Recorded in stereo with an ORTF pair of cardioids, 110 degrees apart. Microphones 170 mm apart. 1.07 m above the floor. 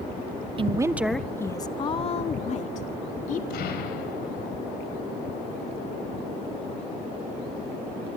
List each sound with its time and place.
0.6 s a woman speaking: 35° right, 0.9 m; by 3.4 s 50° left, 2.5 m
3.5 s an explosion: 65° left, 5 m